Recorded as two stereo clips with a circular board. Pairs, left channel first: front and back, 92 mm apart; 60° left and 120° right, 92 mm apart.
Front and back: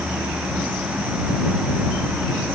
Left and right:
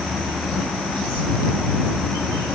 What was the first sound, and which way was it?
Only background noise.